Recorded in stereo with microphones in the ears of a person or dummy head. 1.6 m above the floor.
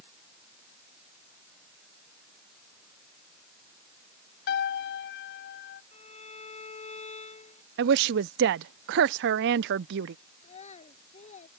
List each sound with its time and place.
4.5 s a piano: 65° left (ahead or behind)
5.9 s a violin: 40° left (ahead or behind)
7.8 s a woman speaking: 65° right (ahead or behind)
10.4 s a child speaking: 40° left (ahead or behind)